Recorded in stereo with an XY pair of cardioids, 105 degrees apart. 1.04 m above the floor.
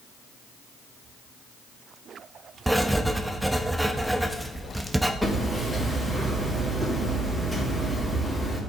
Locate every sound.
2.7 s writing: 5° right, 0.9 m
5.2 s hammering: straight ahead, 3.5 m